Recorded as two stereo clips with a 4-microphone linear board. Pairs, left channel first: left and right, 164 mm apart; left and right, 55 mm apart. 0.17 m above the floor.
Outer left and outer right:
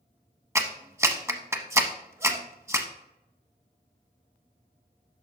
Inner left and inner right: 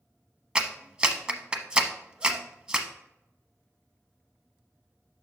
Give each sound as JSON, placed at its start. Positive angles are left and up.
{"t": 0.6, "sound": "a clap", "side_deg": -15, "distance_m": 0.8}